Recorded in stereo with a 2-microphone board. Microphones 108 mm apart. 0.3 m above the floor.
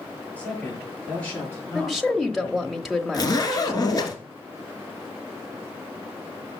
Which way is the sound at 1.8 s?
Centre (ahead or behind).